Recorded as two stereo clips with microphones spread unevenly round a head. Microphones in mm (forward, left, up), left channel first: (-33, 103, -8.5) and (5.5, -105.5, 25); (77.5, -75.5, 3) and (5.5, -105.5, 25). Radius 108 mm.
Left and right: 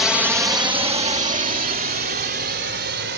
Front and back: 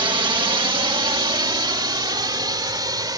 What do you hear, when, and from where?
0.0 s a drone: 175° right; by 3.2 s 120° right